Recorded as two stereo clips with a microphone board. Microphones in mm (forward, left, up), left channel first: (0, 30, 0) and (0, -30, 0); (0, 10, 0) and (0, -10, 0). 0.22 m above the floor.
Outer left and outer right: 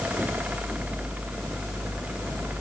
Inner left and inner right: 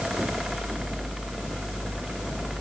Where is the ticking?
No ticking in this recording.